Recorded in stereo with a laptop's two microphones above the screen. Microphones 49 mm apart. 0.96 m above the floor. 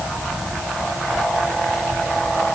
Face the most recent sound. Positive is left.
No sound to turn to.